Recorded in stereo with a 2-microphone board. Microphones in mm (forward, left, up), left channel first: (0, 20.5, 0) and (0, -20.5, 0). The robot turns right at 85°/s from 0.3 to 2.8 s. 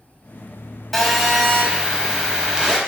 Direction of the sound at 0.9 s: 5° left (ahead or behind).